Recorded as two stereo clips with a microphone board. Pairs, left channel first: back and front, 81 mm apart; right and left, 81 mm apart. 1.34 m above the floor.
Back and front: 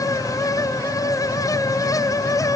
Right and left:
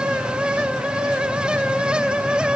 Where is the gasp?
I don't hear a gasp.